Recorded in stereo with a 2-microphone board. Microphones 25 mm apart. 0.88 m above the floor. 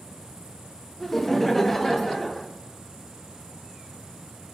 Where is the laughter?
5° left (ahead or behind), 0.8 m.